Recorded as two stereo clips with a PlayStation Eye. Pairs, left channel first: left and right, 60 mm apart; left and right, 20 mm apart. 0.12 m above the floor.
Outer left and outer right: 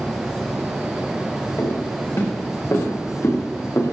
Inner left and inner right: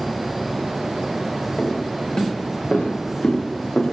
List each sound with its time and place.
1.6 s footsteps: 45° left (ahead or behind), 6 m; by 3.9 s 55° left (ahead or behind), 4 m